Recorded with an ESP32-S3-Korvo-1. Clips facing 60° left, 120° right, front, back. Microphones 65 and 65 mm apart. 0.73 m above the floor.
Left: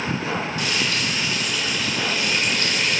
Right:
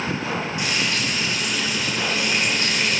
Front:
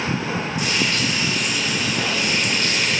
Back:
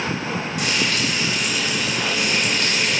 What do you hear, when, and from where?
0.6 s frying: 175° left, 1.5 m